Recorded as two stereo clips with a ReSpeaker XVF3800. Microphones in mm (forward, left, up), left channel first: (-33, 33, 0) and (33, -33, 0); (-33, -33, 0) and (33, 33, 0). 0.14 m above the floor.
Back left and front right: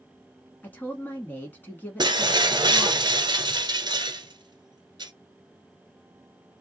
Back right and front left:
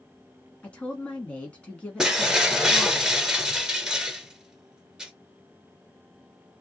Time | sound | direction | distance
0.6 | a woman speaking | 170° left | 1.3 m
2.0 | breaking glass | 35° right | 0.9 m